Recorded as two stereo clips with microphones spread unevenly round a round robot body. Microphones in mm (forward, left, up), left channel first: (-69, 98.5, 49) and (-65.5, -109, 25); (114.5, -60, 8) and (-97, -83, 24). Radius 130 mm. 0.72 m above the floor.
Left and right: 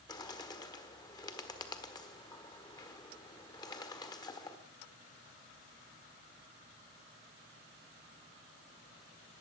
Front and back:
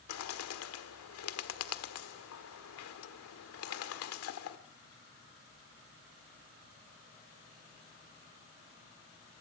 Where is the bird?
15° left, 1.4 m.